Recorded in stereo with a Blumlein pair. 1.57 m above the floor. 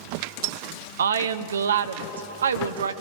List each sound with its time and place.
1.0 s a woman speaking: 65° right, 0.7 m